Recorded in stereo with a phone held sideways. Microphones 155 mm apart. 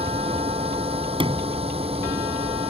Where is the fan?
40° right (ahead or behind).